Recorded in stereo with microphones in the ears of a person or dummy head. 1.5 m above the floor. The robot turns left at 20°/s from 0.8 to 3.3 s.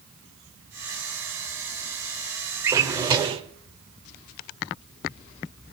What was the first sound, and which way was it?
A drawer, 20° right (ahead or behind).